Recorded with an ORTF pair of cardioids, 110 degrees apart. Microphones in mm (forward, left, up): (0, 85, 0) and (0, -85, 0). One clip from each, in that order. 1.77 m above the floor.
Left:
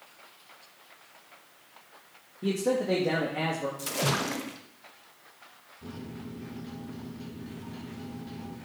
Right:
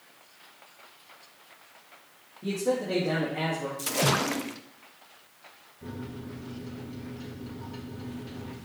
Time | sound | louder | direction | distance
2.4 | a man speaking | left 1 dB | 40° left | 2.5 m
3.8 | a splash | right 5 dB | 15° right | 0.9 m
5.8 | a microwave | right 2 dB | 15° right | 3.5 m